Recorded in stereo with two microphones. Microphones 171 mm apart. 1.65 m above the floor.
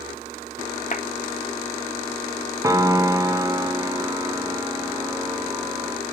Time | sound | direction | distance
0.9 | a clap | 50° left (ahead or behind) | 1.5 m
2.6 | a piano | 20° right (ahead or behind) | 0.9 m